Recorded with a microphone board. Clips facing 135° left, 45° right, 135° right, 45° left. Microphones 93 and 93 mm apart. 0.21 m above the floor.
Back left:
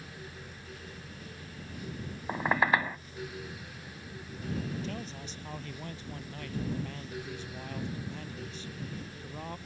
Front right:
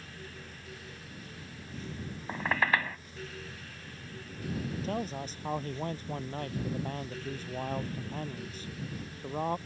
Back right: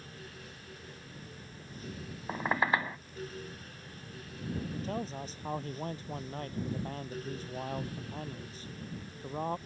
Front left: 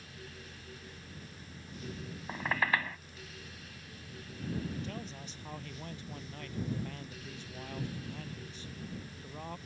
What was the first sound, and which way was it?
A squeak, 175° right.